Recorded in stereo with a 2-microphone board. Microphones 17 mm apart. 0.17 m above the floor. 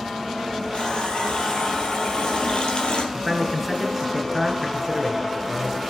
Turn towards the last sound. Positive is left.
turn(degrees=-5)  # may be behind; listen again after turning